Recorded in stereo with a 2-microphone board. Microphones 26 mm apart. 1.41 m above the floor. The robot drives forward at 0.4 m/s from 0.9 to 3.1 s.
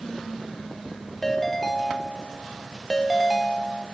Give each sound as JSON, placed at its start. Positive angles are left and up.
{"t": 1.2, "sound": "a ringtone", "side_deg": 10, "distance_m": 2.0}